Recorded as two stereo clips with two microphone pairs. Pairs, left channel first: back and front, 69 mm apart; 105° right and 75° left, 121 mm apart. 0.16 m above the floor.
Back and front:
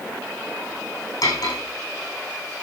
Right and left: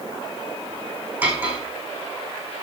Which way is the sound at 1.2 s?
150° left.